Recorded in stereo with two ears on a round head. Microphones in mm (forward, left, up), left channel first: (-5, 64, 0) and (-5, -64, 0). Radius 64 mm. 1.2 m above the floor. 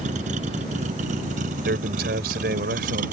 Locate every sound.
0.0 s a vehicle: 55° right (ahead or behind); by 3.1 s 60° right (ahead or behind)
1.6 s a man speaking: 80° right